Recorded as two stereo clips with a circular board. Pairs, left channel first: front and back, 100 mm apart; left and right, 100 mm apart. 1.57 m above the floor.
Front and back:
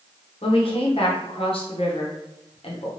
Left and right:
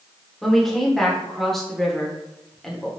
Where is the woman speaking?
5° left, 1.0 m.